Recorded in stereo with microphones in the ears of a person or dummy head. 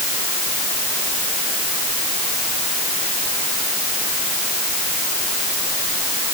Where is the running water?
I don't hear running water.